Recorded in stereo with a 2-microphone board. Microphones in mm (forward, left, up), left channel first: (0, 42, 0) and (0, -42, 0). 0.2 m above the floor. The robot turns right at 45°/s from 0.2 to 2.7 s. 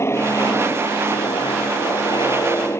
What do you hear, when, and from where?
0.0 s an aircraft: 35° left; by 2.8 s 145° left